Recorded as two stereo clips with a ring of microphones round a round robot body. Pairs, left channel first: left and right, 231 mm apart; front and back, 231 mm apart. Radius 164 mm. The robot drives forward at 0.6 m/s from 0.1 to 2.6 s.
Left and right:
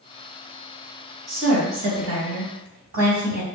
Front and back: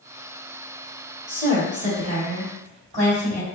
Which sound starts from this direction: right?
A woman speaking, at 1.3 s.